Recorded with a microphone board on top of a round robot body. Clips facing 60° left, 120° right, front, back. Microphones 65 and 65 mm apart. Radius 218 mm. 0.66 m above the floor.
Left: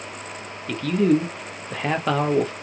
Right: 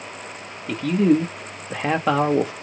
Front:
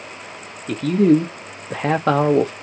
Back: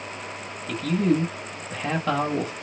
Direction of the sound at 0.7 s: 40° right.